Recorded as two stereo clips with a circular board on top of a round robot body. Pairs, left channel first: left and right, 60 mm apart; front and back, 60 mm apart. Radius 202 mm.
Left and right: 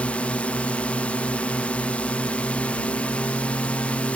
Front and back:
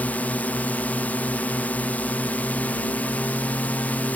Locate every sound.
0.0 s a drone: 40° left